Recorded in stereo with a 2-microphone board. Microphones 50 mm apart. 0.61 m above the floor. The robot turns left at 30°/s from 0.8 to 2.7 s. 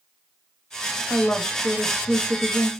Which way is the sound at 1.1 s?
Centre (ahead or behind).